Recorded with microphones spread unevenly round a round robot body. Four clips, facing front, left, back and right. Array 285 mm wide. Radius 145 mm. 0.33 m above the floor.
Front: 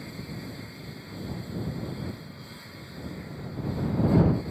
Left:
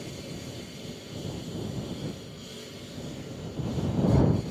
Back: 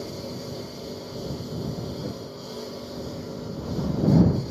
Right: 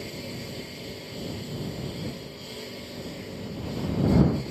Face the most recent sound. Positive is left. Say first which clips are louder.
# right 2 dB, back 5 dB
turn(degrees=-165)